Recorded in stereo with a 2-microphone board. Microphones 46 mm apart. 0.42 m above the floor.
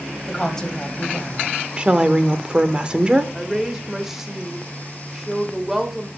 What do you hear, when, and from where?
0.3 s a woman speaking: 15° left (ahead or behind), 2 m
1.8 s a woman speaking: 20° right (ahead or behind), 0.9 m
3.4 s a woman speaking: 5° right (ahead or behind), 1.5 m